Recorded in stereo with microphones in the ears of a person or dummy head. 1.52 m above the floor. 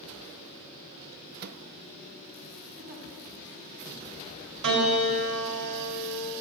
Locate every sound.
1.4 s a microwave: 55° right (ahead or behind), 0.6 m
2.8 s a giggle: 75° right (ahead or behind), 8 m
4.6 s a piano: 65° right (ahead or behind), 4.5 m